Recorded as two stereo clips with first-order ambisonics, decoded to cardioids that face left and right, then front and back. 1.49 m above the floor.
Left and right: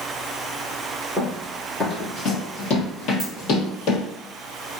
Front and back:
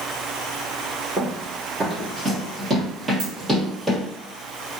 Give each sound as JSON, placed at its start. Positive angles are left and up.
{"t": 1.2, "sound": "running footsteps", "azimuth_deg": 140, "distance_m": 1.6}
{"t": 3.2, "sound": "a dropped coin", "azimuth_deg": 175, "distance_m": 1.3}